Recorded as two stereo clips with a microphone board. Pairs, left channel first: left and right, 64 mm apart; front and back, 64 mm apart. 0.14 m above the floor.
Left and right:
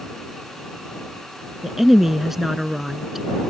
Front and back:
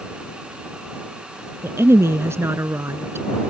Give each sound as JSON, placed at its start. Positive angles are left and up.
{"t": 1.6, "sound": "a woman speaking", "azimuth_deg": -175}